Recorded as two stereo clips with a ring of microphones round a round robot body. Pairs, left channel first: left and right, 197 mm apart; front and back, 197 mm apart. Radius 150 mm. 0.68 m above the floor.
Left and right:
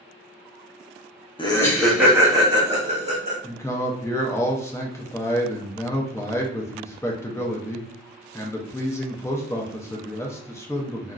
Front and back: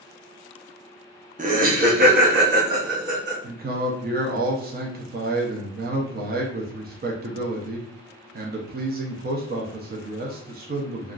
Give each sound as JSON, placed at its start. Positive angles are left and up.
{"t": 1.4, "sound": "laughter", "azimuth_deg": 145, "distance_m": 0.7}
{"t": 3.4, "sound": "a man speaking", "azimuth_deg": 165, "distance_m": 0.6}